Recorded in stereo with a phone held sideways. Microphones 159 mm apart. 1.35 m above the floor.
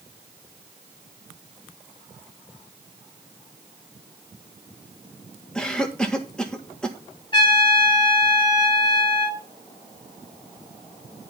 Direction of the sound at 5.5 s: 5° left (ahead or behind).